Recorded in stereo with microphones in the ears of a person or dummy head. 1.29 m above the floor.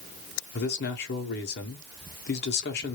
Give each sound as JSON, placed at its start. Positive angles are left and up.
{"t": 0.5, "sound": "a man speaking", "side_deg": 50, "distance_m": 1.0}